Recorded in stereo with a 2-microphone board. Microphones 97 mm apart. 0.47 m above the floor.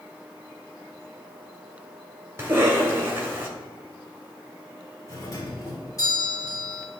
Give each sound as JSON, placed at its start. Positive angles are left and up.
{"t": 2.4, "sound": "a cough", "side_deg": -30, "distance_m": 2.0}
{"t": 5.1, "sound": "a doorbell", "side_deg": 40, "distance_m": 2.0}